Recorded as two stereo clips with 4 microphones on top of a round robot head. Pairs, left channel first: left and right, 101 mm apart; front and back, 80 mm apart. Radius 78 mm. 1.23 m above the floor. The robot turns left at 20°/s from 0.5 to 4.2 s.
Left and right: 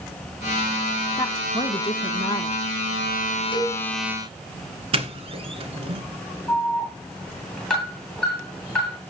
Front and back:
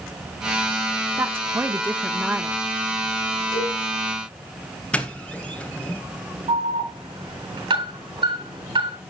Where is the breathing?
I don't hear breathing.